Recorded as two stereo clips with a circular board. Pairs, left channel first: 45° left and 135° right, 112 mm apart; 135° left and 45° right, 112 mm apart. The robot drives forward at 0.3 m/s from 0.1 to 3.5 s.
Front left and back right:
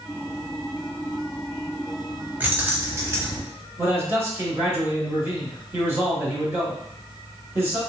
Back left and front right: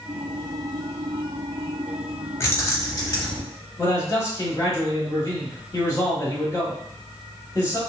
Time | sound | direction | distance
2.4 | keys jangling | 170° left | 0.7 m
3.8 | a man speaking | 170° left | 1.4 m